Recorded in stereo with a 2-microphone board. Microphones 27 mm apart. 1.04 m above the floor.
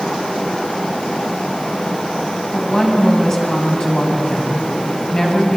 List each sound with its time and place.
2.5 s a woman speaking: 35° left (ahead or behind), 8 m